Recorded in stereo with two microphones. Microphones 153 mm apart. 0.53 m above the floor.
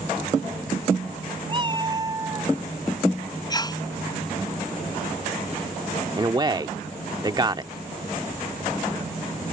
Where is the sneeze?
25° left (ahead or behind).